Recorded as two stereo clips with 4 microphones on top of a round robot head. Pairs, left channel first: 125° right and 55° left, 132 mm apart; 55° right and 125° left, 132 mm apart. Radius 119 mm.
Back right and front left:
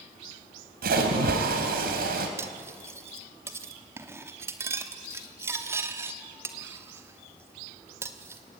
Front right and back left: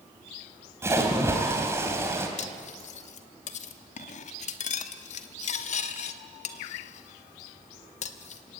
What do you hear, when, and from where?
0.8 s a splash: 55° left, 3 m
2.4 s cutlery clinking: 20° right, 1.1 m